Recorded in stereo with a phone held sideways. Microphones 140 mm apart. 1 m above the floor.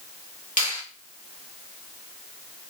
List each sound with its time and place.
0.6 s a finger snap: 75° left (ahead or behind), 1.9 m